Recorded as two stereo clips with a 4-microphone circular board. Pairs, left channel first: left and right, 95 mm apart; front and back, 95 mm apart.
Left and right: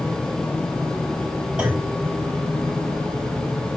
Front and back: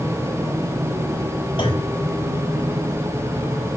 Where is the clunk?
10° right, 3 m.